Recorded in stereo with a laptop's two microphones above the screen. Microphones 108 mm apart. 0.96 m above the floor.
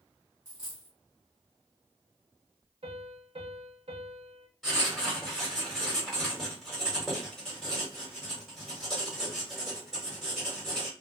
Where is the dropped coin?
30° left (ahead or behind), 0.9 m.